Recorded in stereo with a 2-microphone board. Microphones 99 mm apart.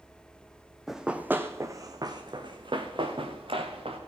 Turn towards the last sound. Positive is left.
turn(degrees=-65)  # may be behind; listen again after turning